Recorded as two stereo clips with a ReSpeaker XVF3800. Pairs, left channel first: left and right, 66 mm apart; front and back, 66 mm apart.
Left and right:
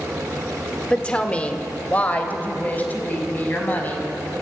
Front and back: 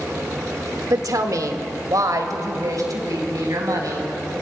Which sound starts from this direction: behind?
A woman speaking, at 0.9 s.